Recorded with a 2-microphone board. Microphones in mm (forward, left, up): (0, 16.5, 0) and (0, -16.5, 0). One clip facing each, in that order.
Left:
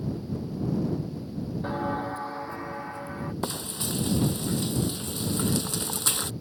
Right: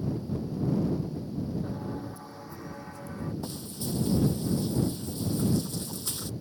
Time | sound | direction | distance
1.6 | footsteps | 60° left (ahead or behind) | ?
3.4 | frying | 70° left (ahead or behind) | ?